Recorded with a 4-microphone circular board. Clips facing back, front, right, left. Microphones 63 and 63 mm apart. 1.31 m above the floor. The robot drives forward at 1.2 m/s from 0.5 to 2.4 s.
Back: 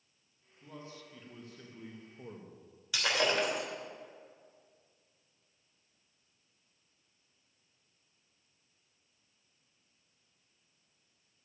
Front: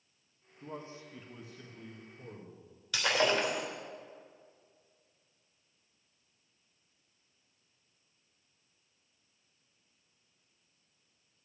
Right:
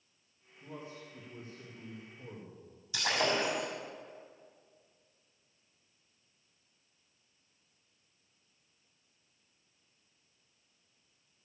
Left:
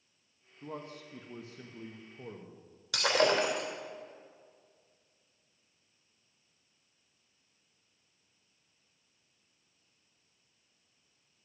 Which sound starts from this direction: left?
Breaking glass, at 2.9 s.